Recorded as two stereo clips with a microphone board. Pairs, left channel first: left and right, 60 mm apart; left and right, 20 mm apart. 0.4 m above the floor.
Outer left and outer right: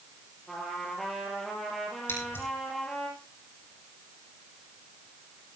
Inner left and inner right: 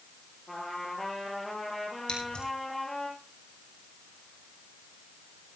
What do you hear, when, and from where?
0.5 s a trumpet: centre (ahead or behind), 2.5 m
2.1 s scissors: 35° left (ahead or behind), 4 m